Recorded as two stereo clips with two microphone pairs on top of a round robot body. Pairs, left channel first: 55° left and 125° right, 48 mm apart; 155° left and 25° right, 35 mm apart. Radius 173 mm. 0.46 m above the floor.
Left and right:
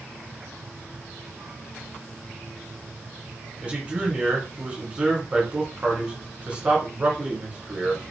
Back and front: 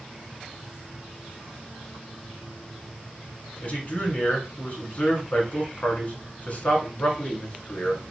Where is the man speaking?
170° left, 2 m.